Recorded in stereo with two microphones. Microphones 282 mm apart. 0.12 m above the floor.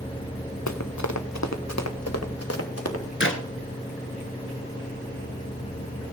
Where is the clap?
45° left (ahead or behind), 1.2 m.